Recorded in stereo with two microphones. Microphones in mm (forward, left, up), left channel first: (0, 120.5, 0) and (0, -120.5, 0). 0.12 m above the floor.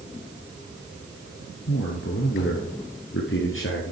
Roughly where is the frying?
No frying in this recording.